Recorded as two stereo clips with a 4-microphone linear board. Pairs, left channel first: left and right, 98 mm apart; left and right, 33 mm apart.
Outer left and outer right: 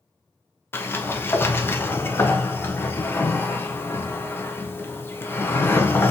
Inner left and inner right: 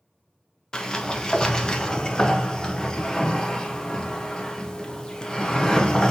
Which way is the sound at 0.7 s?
25° left (ahead or behind).